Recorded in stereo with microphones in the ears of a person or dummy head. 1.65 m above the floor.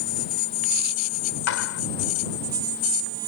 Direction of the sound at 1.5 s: 85° left.